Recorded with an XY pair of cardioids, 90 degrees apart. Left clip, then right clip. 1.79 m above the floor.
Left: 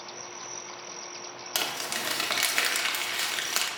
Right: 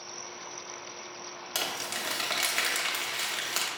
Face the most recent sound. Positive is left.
turn(degrees=30)